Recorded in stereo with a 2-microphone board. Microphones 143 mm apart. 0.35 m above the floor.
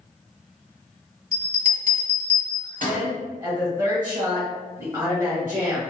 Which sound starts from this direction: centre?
A woman speaking, at 2.8 s.